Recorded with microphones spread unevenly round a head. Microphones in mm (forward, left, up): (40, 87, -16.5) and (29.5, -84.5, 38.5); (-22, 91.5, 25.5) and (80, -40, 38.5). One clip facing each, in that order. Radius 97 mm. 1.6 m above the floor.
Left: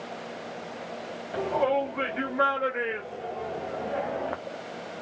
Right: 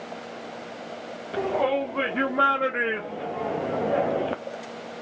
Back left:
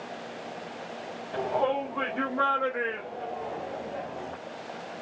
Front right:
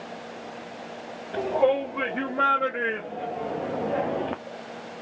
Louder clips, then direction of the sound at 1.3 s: Right 1 dB, front right 5 dB; 130° right.